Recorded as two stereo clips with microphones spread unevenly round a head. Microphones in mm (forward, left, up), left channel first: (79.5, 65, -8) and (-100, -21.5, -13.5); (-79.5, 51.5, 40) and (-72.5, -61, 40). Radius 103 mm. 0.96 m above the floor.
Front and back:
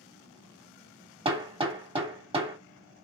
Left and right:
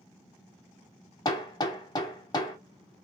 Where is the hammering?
145° left, 1.4 m.